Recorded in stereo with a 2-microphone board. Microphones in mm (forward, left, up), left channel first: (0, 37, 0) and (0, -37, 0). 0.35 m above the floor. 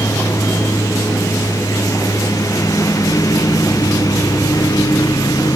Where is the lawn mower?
50° left (ahead or behind); by 5.6 s 60° left (ahead or behind).